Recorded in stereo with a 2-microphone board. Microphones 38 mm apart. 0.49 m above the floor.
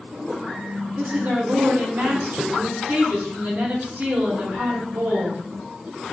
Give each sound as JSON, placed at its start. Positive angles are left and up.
{"t": 1.0, "sound": "a woman speaking", "side_deg": -60, "distance_m": 1.4}